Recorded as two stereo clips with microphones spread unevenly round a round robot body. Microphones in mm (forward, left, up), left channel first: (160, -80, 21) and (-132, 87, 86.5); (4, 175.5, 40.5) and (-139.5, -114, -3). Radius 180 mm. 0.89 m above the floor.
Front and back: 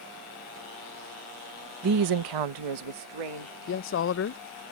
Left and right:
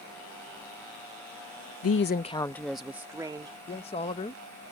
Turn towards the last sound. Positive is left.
turn(degrees=-10)